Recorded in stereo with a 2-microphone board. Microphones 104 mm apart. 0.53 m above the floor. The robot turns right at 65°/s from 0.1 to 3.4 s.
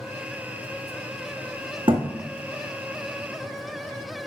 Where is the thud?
55° right (ahead or behind), 1.7 m; by 2.0 s 45° right (ahead or behind), 1.7 m.